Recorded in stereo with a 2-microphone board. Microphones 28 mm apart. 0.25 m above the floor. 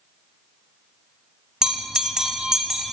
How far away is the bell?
About 1.3 m.